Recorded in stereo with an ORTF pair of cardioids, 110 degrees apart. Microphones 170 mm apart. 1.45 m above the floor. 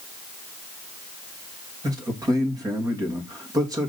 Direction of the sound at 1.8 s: 20° right.